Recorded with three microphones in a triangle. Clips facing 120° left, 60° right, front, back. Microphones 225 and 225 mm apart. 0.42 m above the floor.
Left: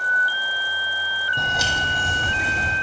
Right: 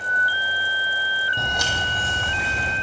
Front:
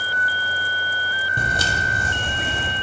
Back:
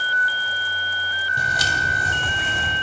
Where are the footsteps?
30° left, 0.7 m; by 2.7 s 50° left, 1.6 m.